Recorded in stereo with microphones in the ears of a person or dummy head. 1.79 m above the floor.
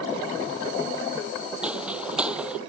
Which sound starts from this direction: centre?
Footsteps, at 1.6 s.